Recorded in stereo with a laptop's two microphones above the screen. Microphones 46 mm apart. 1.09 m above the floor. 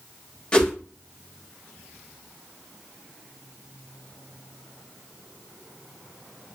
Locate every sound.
0.5 s a whoosh: 20° left (ahead or behind), 0.6 m